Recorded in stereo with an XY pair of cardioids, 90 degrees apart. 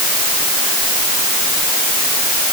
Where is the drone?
No drone in this recording.